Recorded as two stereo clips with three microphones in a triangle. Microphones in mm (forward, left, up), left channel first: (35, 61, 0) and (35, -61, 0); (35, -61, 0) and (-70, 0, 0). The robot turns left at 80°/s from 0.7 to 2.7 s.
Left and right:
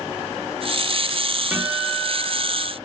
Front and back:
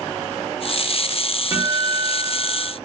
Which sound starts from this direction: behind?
A guitar, at 1.5 s.